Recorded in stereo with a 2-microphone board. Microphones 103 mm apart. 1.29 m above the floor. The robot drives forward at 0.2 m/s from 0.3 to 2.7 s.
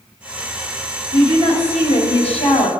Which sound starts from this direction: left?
A woman speaking, at 1.1 s.